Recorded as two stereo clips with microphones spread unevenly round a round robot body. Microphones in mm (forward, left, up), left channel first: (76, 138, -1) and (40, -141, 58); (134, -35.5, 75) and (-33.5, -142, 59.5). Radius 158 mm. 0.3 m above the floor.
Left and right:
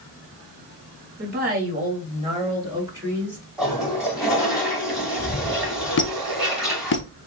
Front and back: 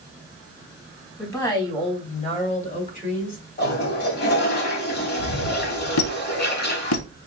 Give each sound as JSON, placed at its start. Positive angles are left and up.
{"t": 1.2, "sound": "a woman speaking", "azimuth_deg": -45, "distance_m": 2.0}
{"t": 3.6, "sound": "a toilet flushing", "azimuth_deg": -5, "distance_m": 1.4}
{"t": 6.0, "sound": "a squeak", "azimuth_deg": 30, "distance_m": 0.6}